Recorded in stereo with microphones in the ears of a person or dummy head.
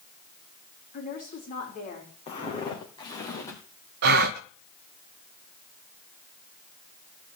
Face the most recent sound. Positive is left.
turn(degrees=-50)  # may be behind; listen again after turning